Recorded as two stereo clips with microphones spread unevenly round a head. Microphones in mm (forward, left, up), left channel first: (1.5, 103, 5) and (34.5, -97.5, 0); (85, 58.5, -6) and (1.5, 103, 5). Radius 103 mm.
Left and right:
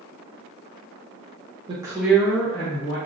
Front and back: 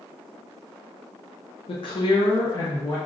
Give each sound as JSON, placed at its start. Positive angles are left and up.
{"t": 1.7, "sound": "a woman speaking", "azimuth_deg": -15, "distance_m": 0.7}